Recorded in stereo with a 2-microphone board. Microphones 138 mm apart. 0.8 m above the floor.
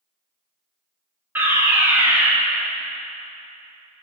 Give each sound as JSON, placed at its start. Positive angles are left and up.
{"t": 1.4, "sound": "a fire alarm", "side_deg": -15, "distance_m": 2.0}